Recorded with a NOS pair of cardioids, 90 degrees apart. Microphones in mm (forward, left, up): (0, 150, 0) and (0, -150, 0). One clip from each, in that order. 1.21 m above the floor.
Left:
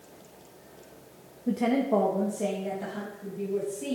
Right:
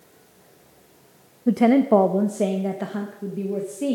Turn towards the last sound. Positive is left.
turn(degrees=-75)